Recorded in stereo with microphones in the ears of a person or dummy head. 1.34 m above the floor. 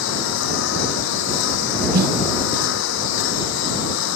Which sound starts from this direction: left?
A lawn mower, at 0.0 s.